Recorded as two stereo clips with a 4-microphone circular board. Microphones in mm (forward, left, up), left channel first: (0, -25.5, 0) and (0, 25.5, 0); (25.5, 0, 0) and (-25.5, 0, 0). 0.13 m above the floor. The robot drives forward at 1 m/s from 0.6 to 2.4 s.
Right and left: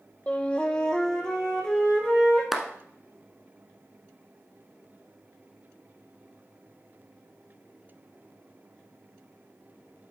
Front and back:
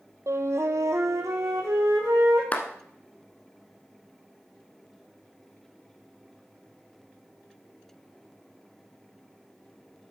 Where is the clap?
10° left, 1.0 m.